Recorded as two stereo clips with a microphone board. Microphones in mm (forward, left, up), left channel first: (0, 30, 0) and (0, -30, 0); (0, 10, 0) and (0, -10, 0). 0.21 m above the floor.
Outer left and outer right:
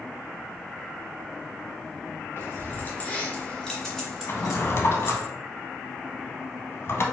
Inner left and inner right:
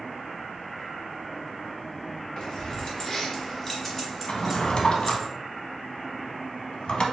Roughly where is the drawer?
Left.